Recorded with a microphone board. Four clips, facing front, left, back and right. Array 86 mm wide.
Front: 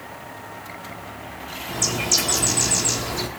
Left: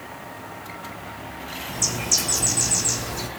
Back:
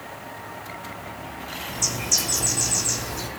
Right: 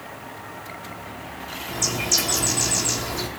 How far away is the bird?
About 1.3 m.